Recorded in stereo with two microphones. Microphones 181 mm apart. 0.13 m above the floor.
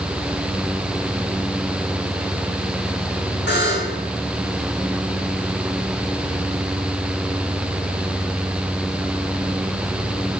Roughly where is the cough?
No cough in this recording.